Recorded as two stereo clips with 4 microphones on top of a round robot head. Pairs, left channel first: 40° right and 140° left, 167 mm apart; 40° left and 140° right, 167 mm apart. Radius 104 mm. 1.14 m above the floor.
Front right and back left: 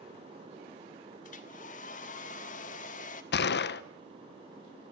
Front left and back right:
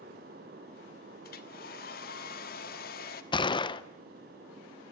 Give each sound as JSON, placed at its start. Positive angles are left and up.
{"t": 1.2, "sound": "a hair dryer", "azimuth_deg": 5, "distance_m": 1.3}
{"t": 3.3, "sound": "a gunshot", "azimuth_deg": -20, "distance_m": 0.6}